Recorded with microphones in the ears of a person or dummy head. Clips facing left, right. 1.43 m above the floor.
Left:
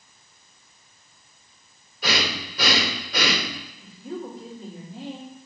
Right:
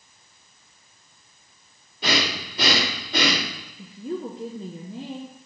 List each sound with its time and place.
2.0 s breathing: 30° right (ahead or behind), 1.7 m
3.8 s a woman speaking: 80° right, 1.1 m